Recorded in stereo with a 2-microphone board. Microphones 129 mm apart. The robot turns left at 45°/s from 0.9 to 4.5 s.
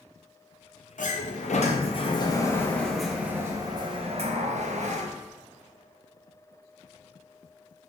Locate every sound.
1.0 s a sliding door: 90° left, 0.6 m; by 5.1 s 70° right, 0.6 m